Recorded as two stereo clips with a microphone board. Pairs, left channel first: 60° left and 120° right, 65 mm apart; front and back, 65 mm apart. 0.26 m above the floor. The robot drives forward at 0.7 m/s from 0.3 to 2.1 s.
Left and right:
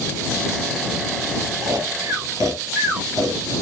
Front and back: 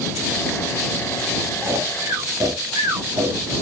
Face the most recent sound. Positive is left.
turn(degrees=-155)